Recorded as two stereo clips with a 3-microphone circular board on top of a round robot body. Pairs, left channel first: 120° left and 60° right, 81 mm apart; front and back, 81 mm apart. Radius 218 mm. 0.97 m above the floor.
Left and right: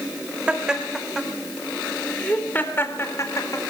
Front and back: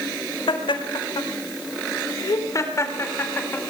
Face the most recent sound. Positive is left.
turn(degrees=70)